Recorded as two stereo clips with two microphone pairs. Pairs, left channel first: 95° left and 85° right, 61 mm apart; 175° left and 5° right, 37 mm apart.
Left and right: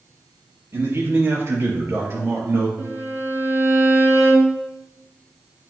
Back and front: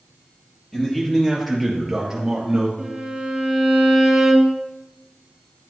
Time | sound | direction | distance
0.7 | a man speaking | 110° right | 3 m
2.8 | a violin | 85° right | 2.5 m